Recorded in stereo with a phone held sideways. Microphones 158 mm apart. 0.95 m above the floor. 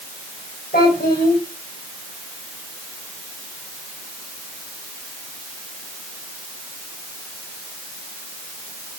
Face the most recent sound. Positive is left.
turn(degrees=70)  # may be behind; listen again after turning